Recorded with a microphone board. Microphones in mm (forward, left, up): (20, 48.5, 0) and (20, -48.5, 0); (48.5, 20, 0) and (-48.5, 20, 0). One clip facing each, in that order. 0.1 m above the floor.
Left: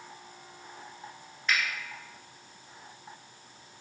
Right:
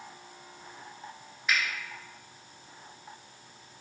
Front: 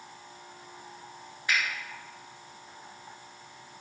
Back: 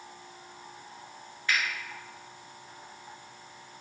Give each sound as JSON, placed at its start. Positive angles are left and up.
{"t": 1.5, "sound": "a finger snap", "azimuth_deg": -15, "distance_m": 1.2}